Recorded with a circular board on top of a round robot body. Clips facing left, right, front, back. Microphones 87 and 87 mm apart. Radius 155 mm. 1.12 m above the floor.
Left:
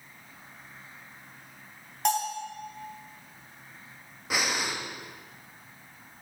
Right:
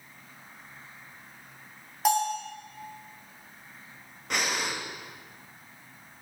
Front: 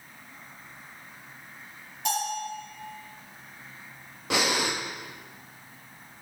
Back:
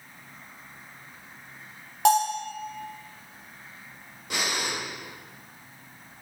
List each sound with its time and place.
2.0 s a bell: 175° right, 3.5 m
4.3 s breathing: 5° left, 1.2 m